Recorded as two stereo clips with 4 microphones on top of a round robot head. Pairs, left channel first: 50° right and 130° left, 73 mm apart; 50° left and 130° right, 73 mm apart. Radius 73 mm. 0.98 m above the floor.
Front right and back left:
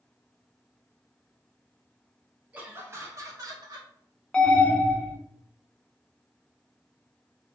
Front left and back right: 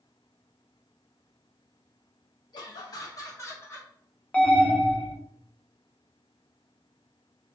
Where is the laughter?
60° left, 0.8 m; by 3.9 s 105° left, 1.2 m.